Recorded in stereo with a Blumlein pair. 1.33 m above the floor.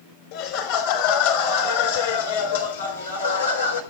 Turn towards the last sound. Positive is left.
turn(degrees=80)